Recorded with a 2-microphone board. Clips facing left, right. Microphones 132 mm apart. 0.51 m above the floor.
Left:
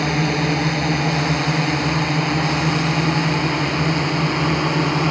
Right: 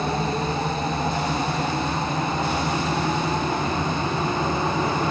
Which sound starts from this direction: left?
A drone, at 0.0 s.